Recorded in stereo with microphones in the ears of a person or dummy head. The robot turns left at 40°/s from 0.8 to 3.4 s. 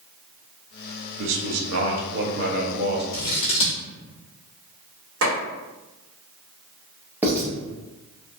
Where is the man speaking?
70° right, 0.8 m; by 3.0 s 140° right, 0.8 m.